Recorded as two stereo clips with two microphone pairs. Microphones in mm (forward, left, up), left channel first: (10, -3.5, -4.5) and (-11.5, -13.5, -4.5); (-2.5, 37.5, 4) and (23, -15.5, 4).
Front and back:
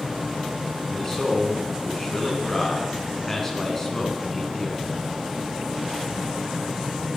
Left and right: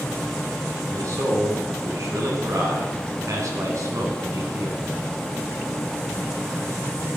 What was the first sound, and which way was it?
A man speaking, 55° right.